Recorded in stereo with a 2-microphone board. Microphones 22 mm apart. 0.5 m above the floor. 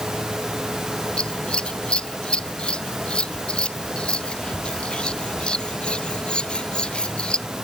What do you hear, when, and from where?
1.2 s scissors: 45° left (ahead or behind)